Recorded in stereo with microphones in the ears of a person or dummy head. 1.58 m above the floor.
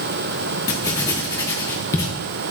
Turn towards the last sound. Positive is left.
turn(degrees=20)  # may be behind; listen again after turning